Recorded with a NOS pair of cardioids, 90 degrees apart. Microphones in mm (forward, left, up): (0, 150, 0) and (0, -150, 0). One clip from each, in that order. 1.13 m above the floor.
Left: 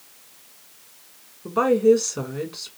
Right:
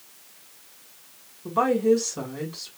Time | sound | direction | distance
1.4 | a woman speaking | 15° left | 2.0 m